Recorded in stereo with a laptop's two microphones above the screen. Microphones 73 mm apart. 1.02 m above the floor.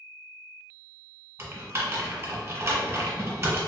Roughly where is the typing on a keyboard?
Right.